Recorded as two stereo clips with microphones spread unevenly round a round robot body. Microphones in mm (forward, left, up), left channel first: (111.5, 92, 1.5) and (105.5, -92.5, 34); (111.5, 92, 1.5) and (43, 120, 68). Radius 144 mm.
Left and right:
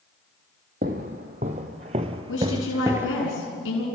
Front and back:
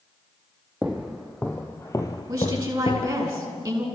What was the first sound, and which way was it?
Footsteps, 140° right.